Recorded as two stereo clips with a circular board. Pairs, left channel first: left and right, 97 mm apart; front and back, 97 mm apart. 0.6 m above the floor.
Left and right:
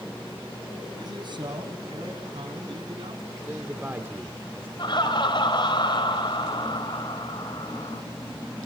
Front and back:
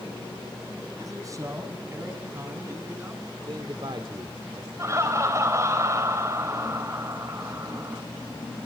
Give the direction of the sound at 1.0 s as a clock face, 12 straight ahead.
4 o'clock.